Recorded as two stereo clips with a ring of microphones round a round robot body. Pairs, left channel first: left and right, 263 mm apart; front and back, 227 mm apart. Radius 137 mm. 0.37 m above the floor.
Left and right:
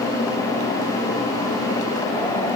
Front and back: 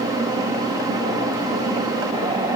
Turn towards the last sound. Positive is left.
No sound to turn to.